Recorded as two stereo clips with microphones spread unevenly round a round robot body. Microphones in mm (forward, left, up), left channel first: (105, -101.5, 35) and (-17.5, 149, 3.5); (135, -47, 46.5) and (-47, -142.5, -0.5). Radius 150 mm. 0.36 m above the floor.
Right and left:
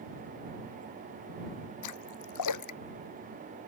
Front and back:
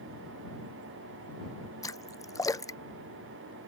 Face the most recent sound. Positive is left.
turn(degrees=-45)